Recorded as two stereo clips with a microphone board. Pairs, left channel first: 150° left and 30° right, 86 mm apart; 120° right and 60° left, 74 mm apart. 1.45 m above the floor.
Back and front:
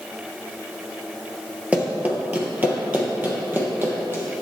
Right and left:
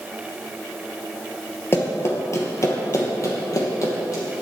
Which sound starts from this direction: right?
Running footsteps, at 1.7 s.